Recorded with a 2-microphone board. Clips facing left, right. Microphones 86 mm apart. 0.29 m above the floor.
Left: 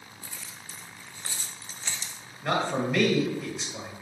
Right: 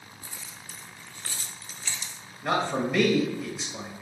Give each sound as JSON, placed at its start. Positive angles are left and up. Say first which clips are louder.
{"t": 0.2, "sound": "keys jangling", "louder": "even", "side_deg": -20, "distance_m": 0.9}
{"t": 2.4, "sound": "a man speaking", "louder": "right 1 dB", "side_deg": -5, "distance_m": 1.1}